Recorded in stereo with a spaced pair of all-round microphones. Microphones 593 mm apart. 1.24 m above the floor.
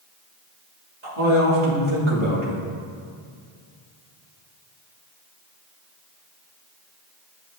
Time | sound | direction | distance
1.0 | a man speaking | 50° right (ahead or behind) | 1.8 m